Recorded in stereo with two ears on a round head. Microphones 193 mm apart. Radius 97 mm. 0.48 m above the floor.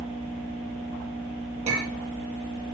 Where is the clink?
30° right (ahead or behind), 9.5 m.